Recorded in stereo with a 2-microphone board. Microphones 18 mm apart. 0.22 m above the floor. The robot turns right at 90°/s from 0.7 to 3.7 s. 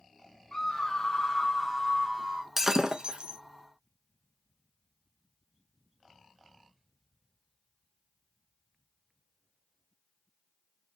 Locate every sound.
0.5 s a scream: 75° left, 2.0 m; by 2.5 s 125° right, 2.0 m
2.6 s breaking glass: 15° right (ahead or behind), 0.5 m; by 3.4 s 75° right (ahead or behind), 0.5 m